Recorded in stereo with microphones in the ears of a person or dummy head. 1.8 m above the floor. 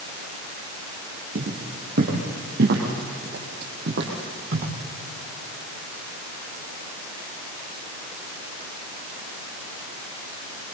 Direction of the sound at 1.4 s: 55° right (ahead or behind).